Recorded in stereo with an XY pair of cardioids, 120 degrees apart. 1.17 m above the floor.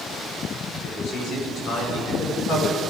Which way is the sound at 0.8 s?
60° left.